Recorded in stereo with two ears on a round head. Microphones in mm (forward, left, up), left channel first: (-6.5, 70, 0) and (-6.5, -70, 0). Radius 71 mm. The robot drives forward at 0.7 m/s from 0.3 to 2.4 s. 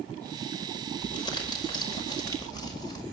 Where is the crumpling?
30° left (ahead or behind), 5.5 m; by 3.0 s 25° left (ahead or behind), 6 m.